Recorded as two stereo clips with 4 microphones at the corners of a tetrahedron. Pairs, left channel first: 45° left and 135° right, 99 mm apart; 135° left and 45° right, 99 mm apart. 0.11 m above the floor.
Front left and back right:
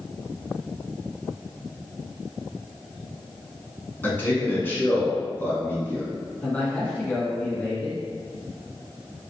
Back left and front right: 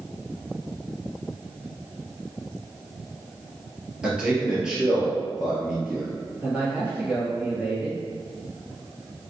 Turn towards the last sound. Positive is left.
turn(degrees=0)